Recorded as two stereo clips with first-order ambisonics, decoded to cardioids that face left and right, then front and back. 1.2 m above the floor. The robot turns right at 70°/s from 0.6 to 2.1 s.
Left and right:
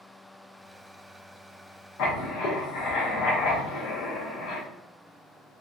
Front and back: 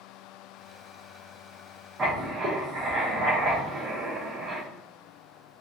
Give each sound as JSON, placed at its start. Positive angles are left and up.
{"t": 2.0, "sound": "writing", "azimuth_deg": 110, "distance_m": 0.6}